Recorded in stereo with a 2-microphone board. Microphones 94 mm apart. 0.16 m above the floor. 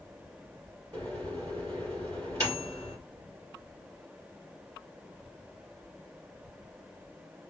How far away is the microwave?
About 2.5 m.